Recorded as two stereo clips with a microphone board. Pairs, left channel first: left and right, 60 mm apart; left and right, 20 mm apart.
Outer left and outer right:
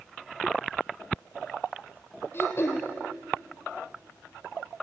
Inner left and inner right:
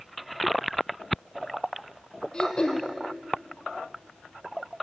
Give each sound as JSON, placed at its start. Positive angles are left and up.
{"t": 2.3, "sound": "throat clearing", "side_deg": 40, "distance_m": 2.5}